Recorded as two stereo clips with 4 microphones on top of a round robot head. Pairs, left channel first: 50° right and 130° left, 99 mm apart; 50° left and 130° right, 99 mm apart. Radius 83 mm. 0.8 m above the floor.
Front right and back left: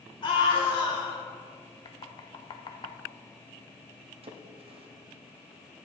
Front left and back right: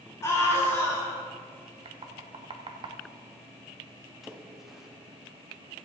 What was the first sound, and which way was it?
A scream, 10° right.